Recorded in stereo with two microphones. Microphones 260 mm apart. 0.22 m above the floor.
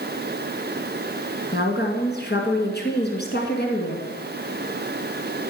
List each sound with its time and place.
1.5 s a woman speaking: 40° left (ahead or behind), 2 m